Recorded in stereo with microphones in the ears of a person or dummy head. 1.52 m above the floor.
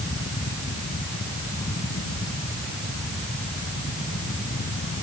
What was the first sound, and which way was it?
Only background noise.